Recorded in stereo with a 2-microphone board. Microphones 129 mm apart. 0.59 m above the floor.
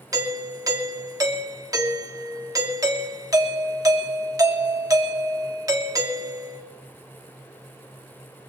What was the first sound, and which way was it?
A doorbell, 25° right (ahead or behind).